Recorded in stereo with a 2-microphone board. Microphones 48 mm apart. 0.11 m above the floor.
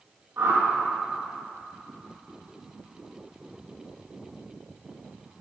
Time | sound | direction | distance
0.4 | a whoosh | 60° right (ahead or behind) | 3.5 m